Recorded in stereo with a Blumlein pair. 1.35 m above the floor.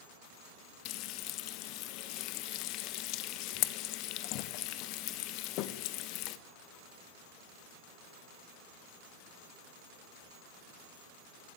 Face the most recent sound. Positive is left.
turn(degrees=40)